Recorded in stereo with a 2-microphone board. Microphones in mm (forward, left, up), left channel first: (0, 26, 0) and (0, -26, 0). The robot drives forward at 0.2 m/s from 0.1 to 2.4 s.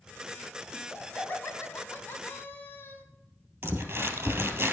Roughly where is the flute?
I don't hear a flute.